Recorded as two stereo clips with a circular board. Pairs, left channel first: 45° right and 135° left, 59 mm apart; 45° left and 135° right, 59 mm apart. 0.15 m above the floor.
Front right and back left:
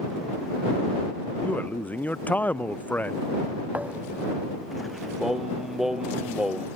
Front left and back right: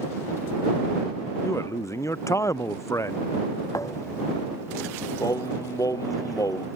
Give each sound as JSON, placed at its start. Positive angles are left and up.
{"t": 1.4, "sound": "a man speaking", "azimuth_deg": 15}
{"t": 3.7, "sound": "a thud", "azimuth_deg": 70}
{"t": 5.2, "sound": "singing", "azimuth_deg": 55}